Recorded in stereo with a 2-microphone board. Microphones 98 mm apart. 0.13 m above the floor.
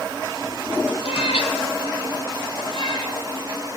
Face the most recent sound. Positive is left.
turn(degrees=45)  # may be behind; listen again after turning